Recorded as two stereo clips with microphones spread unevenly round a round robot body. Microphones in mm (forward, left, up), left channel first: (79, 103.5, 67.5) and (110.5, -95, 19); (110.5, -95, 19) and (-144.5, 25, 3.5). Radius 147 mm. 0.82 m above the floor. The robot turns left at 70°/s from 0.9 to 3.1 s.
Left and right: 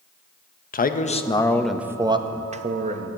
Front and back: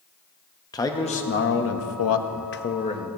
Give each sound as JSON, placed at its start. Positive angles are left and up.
{"t": 0.7, "sound": "a man speaking", "azimuth_deg": 50, "distance_m": 0.9}